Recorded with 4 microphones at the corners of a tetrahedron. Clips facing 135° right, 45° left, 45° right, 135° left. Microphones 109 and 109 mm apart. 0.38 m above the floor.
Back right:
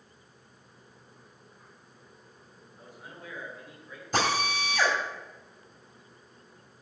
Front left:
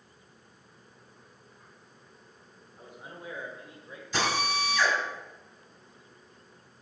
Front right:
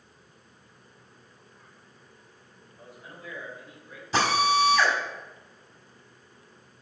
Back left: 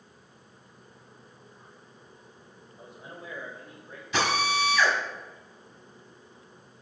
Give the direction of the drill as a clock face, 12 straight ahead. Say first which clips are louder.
Back right 1 dB, front right 4 dB; 3 o'clock.